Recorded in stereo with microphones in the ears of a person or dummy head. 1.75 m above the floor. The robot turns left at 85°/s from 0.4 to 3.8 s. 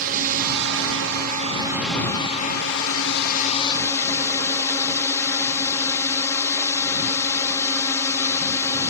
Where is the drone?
55° right; by 8.9 s 15° left.